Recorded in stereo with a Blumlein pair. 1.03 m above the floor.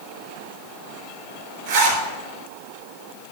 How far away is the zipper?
About 3 m.